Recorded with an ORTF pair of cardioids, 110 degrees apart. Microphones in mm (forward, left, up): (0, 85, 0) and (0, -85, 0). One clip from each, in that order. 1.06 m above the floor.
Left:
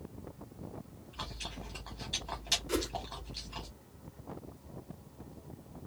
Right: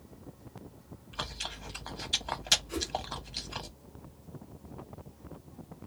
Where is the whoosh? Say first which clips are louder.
Left 2 dB; 60° left, 1.1 m.